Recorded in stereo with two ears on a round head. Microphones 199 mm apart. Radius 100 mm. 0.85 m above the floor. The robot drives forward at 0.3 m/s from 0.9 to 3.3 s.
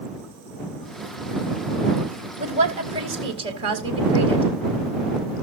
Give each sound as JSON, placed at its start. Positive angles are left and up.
{"t": 2.4, "sound": "a woman speaking", "side_deg": -30, "distance_m": 3.0}